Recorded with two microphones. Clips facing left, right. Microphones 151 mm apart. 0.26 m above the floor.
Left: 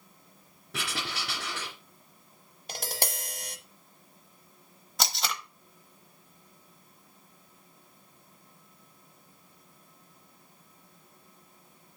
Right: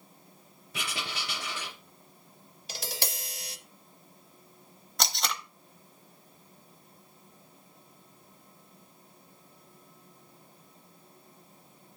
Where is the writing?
75° left (ahead or behind), 2.5 m.